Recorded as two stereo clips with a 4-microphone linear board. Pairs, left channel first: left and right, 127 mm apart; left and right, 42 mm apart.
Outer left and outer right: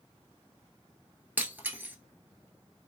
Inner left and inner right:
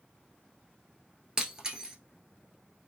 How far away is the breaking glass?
About 0.9 m.